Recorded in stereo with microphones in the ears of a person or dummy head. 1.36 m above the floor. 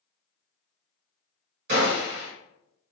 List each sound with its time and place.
1.7 s a gunshot: 55° right (ahead or behind), 1.5 m